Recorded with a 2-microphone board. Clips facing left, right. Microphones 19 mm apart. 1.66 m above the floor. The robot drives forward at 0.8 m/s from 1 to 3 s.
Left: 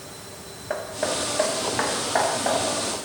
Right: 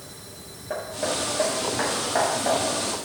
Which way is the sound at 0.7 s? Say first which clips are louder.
Left 1 dB; 40° left (ahead or behind).